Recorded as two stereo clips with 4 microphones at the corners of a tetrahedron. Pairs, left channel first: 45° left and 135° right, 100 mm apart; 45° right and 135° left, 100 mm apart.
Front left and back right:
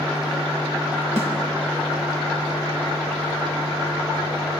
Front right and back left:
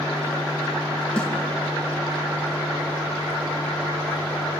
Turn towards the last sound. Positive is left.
turn(degrees=-125)